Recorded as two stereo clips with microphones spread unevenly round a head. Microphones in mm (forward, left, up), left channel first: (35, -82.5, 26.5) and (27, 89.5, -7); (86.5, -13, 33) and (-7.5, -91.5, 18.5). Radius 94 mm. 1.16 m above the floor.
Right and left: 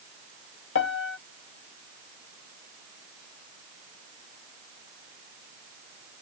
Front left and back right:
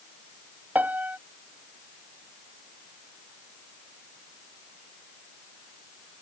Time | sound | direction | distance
0.8 | a piano | 65° right | ?